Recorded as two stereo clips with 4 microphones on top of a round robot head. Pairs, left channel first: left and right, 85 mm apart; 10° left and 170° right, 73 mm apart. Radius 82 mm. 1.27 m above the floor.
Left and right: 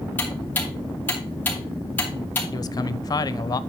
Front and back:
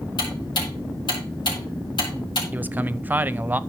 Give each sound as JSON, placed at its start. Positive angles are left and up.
{"t": 0.2, "sound": "ticking", "azimuth_deg": 20, "distance_m": 4.0}
{"t": 2.5, "sound": "a man speaking", "azimuth_deg": 125, "distance_m": 0.7}